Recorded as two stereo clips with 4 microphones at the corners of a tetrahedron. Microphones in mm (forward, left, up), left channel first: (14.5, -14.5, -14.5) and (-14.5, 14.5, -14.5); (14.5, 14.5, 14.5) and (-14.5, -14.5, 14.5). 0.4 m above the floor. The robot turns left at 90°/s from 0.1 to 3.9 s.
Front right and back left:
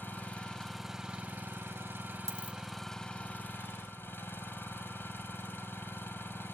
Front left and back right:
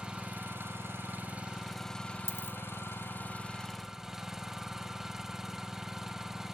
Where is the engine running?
75° right, 2.5 m; by 6.5 s 55° right, 2.5 m.